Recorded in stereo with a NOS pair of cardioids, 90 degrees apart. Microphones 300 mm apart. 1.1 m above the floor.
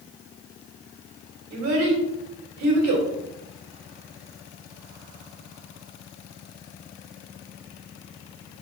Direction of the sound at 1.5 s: 70° right.